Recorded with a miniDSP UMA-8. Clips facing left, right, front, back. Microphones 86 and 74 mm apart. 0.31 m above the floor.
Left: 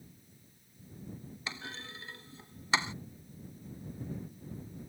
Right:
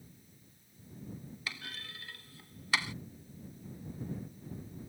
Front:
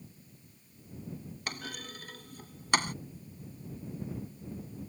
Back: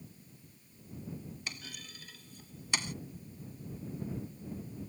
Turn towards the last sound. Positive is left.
turn(degrees=25)